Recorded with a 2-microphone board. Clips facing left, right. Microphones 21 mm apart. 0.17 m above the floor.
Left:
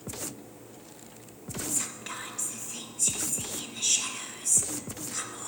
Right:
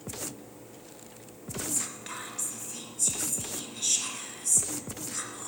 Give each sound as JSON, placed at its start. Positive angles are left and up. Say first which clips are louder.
{"t": 1.7, "sound": "whispering", "louder": "left 2 dB", "side_deg": 5, "distance_m": 2.0}